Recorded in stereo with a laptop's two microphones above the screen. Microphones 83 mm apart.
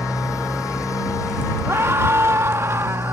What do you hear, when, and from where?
0.0 s a motorcycle: 40° left (ahead or behind)
1.7 s a scream: 35° right (ahead or behind)